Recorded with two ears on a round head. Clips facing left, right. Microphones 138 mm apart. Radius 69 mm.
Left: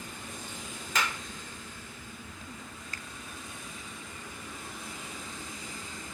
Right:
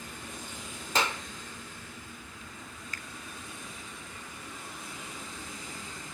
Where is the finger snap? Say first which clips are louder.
Even; 30° left (ahead or behind), 0.7 m.